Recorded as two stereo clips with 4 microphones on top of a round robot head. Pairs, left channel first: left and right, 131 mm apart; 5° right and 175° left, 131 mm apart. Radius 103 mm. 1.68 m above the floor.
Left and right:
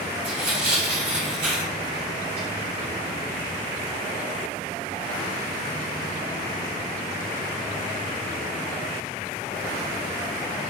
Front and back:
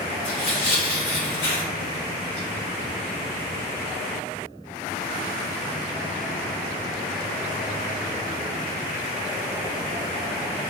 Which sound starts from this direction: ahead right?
Tearing paper, at 0.2 s.